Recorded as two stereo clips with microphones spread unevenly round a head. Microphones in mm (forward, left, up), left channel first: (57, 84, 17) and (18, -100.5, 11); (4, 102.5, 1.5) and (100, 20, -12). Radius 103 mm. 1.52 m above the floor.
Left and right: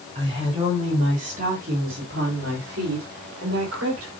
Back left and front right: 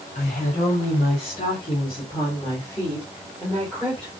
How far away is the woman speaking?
About 3.5 m.